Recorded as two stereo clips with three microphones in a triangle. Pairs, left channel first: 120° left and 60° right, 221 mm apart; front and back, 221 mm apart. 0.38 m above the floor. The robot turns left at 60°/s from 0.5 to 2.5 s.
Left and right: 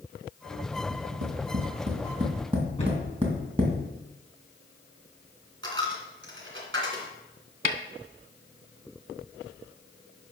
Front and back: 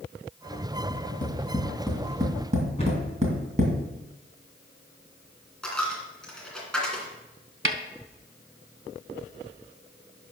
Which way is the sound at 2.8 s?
60° left.